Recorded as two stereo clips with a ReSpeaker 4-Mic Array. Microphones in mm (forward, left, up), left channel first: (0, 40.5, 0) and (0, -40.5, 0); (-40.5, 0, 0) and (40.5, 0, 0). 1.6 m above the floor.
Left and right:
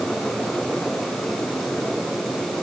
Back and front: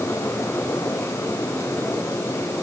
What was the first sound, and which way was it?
Only background noise.